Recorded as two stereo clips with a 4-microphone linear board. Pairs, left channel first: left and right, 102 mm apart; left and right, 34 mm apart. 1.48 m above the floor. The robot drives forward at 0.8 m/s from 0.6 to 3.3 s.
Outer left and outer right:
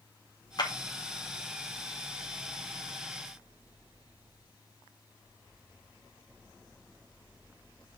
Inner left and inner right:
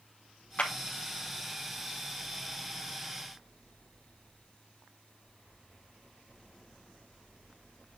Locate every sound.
0.6 s a clap: 45° left (ahead or behind), 2 m